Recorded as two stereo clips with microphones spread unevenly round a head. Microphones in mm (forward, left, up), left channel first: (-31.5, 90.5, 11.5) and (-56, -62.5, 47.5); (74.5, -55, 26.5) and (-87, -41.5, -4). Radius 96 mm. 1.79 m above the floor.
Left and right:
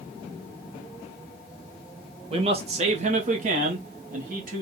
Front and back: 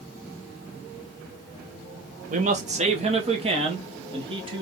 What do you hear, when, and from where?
2.3 s a man speaking: 140° right, 1.4 m; by 4.6 s 125° right, 2.5 m